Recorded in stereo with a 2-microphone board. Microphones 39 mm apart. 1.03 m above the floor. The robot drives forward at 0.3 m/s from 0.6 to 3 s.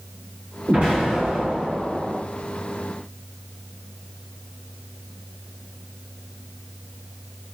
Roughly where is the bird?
No bird in this recording.